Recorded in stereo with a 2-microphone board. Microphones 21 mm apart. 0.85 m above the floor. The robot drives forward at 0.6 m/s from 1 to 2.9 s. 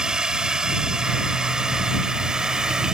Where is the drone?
35° right (ahead or behind).